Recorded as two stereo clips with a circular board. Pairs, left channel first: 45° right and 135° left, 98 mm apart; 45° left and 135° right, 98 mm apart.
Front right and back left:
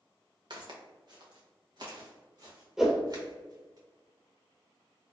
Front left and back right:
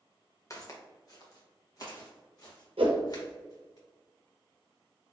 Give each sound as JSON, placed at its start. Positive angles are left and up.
{"t": 0.5, "sound": "footsteps", "azimuth_deg": 100, "distance_m": 1.1}
{"t": 2.8, "sound": "a whoosh", "azimuth_deg": -140, "distance_m": 0.7}